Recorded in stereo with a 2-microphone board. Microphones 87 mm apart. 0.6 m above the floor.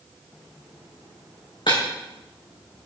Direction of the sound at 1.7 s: 70° left (ahead or behind).